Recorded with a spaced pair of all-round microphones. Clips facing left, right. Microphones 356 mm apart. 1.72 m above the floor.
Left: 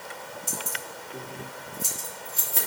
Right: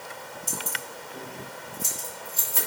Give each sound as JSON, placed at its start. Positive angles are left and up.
{"t": 0.5, "sound": "keys jangling", "side_deg": 65, "distance_m": 3.0}